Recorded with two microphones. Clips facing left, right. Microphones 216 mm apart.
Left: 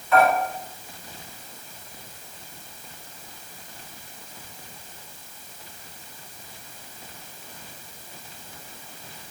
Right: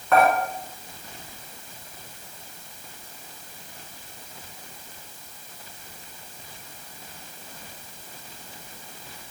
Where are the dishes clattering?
65° right (ahead or behind), 4 m.